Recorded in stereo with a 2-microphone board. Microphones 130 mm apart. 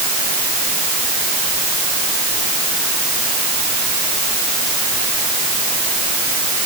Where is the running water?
No running water in this recording.